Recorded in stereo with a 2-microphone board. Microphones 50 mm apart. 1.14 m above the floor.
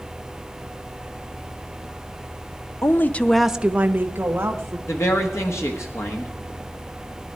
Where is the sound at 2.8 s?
55° left (ahead or behind), 0.7 m; by 4.8 s 50° right (ahead or behind), 1.7 m.